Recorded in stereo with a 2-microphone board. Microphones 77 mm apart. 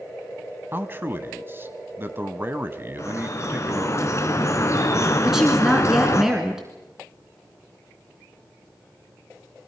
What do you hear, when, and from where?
0.7 s a man speaking: 30° right (ahead or behind), 1.1 m
3.0 s dripping: 40° left (ahead or behind), 2.0 m
5.2 s a woman speaking: 5° right (ahead or behind), 2 m